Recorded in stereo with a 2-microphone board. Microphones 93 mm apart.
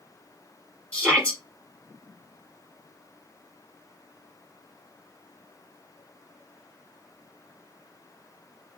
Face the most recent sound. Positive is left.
turn(degrees=15)  # may be behind; listen again after turning